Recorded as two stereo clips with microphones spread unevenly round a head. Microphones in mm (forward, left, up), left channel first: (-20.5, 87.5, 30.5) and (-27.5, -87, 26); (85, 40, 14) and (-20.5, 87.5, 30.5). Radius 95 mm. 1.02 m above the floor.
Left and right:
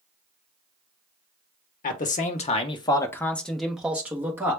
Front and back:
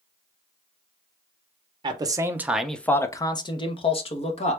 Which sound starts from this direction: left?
A man speaking, at 1.8 s.